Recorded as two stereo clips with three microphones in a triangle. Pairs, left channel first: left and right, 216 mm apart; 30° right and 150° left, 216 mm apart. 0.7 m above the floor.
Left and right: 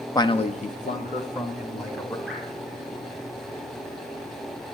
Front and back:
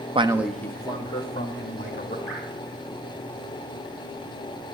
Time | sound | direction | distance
0.1 | a man speaking | 140° left | 0.5 m
2.3 | dripping | straight behind | 6.5 m